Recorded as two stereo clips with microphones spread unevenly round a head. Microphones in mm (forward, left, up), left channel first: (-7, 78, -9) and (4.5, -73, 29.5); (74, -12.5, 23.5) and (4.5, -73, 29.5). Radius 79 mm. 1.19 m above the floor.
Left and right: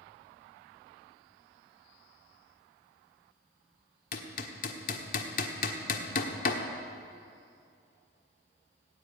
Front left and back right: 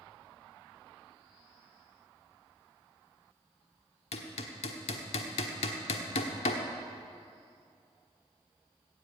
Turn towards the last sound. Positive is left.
turn(degrees=55)